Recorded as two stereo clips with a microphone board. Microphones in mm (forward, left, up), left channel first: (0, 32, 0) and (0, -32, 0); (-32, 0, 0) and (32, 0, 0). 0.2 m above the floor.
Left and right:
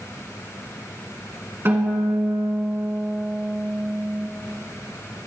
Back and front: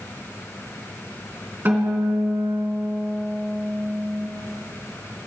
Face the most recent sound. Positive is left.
turn(degrees=-50)